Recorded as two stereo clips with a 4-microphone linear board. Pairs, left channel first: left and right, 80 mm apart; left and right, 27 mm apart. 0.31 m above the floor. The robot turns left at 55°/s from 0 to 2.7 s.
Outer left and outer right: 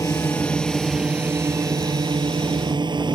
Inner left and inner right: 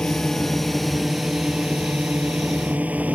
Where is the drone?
45° left; by 3.1 s 105° right.